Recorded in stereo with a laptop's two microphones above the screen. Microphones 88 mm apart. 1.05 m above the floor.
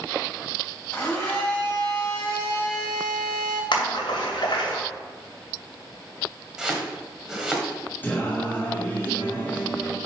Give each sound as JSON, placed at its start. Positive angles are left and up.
{"t": 0.9, "sound": "a blender", "side_deg": 15, "distance_m": 4.0}
{"t": 3.7, "sound": "a splash", "side_deg": 80, "distance_m": 2.5}
{"t": 6.6, "sound": "chopping", "side_deg": -10, "distance_m": 1.5}
{"t": 8.0, "sound": "singing", "side_deg": 20, "distance_m": 1.6}